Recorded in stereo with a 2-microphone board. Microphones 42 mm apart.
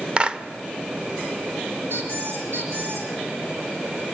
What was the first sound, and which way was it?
A clap, 25° right (ahead or behind).